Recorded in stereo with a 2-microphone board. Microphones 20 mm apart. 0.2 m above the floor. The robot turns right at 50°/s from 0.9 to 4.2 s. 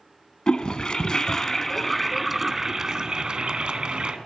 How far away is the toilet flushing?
About 0.6 m.